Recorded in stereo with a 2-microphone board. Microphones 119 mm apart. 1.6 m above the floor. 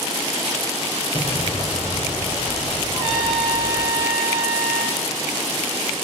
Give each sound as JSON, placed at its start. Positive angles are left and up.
{"t": 1.1, "sound": "an explosion", "side_deg": 45, "distance_m": 3.0}
{"t": 2.9, "sound": "a trumpet", "side_deg": 40, "distance_m": 6.0}